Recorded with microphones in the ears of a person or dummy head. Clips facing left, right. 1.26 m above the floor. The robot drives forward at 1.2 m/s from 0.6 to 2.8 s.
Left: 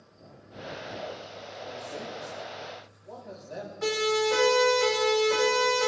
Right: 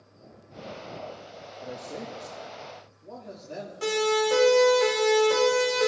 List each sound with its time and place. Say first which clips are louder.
1.6 s a man speaking: right 2 dB; 60° right (ahead or behind), 1.9 m; by 3.7 s 35° right (ahead or behind), 3 m
3.8 s a siren: right 2 dB; 45° right (ahead or behind), 8.5 m; by 5.9 s 50° right (ahead or behind), 7 m